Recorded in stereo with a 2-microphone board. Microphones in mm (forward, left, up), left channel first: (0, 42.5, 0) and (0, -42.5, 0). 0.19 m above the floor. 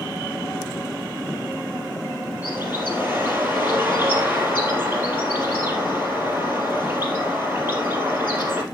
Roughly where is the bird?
Right.